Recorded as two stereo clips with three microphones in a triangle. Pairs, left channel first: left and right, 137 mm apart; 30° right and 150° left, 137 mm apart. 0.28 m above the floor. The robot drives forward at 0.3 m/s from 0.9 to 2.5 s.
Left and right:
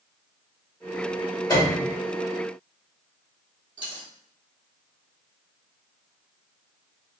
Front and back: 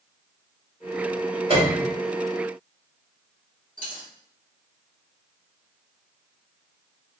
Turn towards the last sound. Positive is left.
turn(degrees=140)